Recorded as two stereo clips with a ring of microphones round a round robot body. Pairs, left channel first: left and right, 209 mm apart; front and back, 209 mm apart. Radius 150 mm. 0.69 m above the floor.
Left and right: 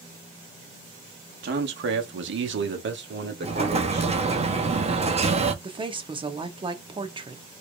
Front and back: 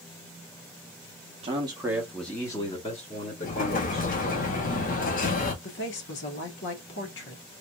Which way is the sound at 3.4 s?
40° right.